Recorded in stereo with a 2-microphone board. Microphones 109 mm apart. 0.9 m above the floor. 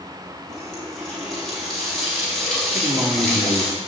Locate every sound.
0.5 s a running tap: 5° left (ahead or behind), 4.5 m
2.7 s a man speaking: 50° right (ahead or behind), 2 m